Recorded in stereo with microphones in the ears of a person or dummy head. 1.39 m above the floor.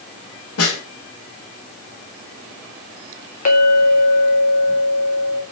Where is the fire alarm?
I don't hear a fire alarm.